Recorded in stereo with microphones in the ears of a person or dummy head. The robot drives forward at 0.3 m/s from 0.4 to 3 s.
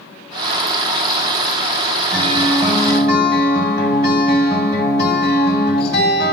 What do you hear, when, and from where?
2.1 s a guitar: 25° right (ahead or behind), 2.5 m; by 6.3 s 20° right (ahead or behind), 2.5 m